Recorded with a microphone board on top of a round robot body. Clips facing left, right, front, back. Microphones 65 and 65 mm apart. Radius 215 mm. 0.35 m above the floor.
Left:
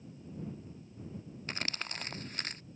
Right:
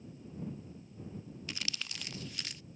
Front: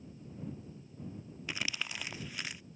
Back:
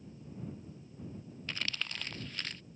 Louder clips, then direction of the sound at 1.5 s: Left 5 dB, front 1 dB; 75° left.